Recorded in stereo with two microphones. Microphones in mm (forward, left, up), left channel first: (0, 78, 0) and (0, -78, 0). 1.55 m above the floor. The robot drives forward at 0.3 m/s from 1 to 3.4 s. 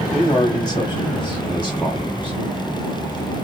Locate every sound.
0.1 s a man speaking: 25° left (ahead or behind), 1.8 m; by 2.4 s 35° left (ahead or behind), 1.4 m